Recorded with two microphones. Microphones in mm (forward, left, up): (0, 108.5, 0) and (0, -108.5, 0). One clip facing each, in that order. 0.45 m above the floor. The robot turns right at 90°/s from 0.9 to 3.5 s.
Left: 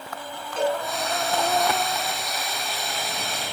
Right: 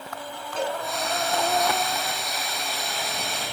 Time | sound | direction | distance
0.6 | a cowbell | 35° right (ahead or behind) | 4 m